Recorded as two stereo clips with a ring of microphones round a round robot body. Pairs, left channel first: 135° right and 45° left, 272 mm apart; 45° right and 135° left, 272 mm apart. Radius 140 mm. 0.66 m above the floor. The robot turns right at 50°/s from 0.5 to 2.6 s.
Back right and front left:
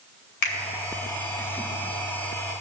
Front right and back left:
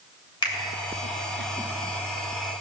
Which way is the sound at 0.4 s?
120° right.